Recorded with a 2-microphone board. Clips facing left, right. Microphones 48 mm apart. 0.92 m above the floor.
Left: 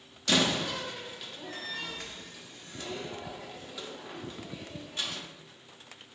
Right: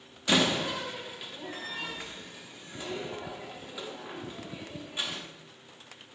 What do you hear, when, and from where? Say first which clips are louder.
0.3 s a door slam: right 1 dB; 15° right (ahead or behind), 0.9 m